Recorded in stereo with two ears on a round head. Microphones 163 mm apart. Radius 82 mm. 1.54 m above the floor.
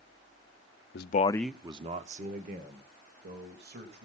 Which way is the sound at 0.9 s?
60° left (ahead or behind).